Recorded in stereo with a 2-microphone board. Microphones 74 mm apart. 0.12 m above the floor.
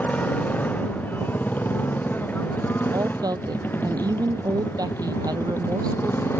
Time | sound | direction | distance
0.0 | a motorcycle | 25° left (ahead or behind) | ?
2.9 | a woman speaking | 60° right (ahead or behind) | ?